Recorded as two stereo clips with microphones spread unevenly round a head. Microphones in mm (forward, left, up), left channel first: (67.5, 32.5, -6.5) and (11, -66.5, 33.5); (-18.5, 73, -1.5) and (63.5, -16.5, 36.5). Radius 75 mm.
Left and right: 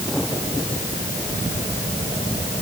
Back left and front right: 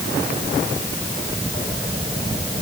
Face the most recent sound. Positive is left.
No sound to turn to.